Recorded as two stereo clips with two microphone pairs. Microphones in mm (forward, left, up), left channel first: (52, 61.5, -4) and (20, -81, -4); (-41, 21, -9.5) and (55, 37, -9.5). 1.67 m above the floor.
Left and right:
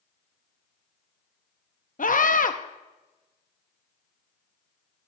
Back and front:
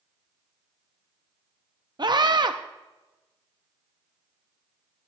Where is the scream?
50° left, 0.7 m.